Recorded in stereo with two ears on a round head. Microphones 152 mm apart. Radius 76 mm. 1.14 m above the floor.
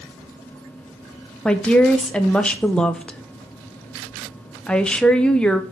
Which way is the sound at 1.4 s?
5° left (ahead or behind).